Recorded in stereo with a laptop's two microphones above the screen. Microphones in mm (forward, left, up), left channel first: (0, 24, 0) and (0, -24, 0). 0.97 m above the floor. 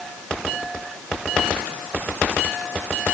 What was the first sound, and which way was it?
Only background noise.